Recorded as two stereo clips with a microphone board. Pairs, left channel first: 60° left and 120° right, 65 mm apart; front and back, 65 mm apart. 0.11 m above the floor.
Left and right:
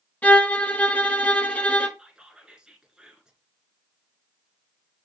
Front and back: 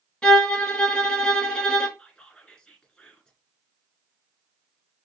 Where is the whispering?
60° right, 1.1 m.